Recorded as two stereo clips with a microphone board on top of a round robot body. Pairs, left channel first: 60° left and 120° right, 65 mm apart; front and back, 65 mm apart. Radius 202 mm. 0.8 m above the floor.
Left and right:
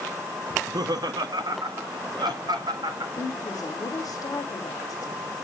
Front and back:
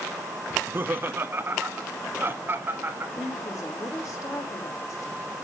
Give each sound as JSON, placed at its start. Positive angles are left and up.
{"t": 0.5, "sound": "laughter", "azimuth_deg": -125, "distance_m": 0.9}
{"t": 3.1, "sound": "a woman speaking", "azimuth_deg": 35, "distance_m": 4.0}